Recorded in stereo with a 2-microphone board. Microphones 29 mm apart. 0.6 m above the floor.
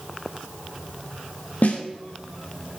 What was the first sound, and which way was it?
A snare drum, 65° left (ahead or behind).